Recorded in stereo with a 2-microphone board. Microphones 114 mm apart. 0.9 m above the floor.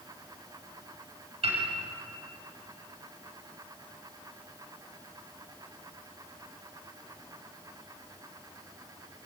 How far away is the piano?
About 6.5 m.